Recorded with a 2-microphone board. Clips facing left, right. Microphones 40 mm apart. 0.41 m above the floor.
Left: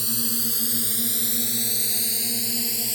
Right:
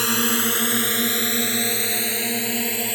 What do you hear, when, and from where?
0.0 s a drone: 70° right (ahead or behind); by 3.0 s 45° right (ahead or behind)